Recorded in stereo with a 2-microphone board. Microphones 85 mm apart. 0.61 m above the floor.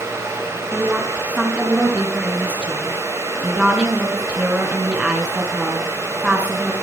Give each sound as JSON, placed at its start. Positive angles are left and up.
{"t": 0.7, "sound": "a woman speaking", "side_deg": -10, "distance_m": 6.0}